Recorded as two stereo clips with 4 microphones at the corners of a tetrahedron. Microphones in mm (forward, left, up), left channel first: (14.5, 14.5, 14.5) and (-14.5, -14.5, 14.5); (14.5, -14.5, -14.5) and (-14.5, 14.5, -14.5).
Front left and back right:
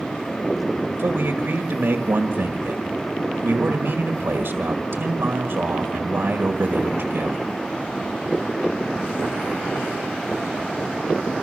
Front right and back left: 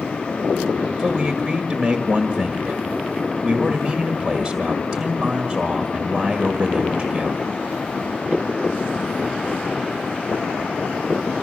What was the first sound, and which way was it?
A man speaking, 140° right.